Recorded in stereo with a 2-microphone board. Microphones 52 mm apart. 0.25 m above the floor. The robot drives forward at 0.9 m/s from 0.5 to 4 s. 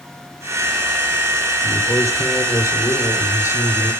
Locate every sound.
1.6 s a man speaking: 70° left (ahead or behind), 4.5 m